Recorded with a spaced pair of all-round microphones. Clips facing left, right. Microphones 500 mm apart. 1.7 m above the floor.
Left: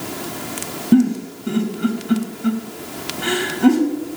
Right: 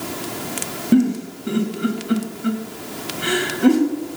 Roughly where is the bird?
I don't hear a bird.